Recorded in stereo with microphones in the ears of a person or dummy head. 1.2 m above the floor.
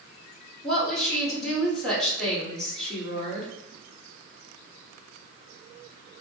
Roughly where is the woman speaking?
Centre.